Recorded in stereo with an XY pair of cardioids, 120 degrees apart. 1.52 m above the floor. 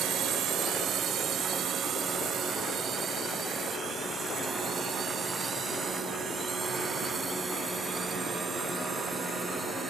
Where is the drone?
60° right; by 9.9 s 25° right.